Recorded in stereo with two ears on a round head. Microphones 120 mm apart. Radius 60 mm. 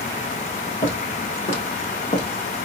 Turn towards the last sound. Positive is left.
turn(degrees=35)  # may be behind; listen again after turning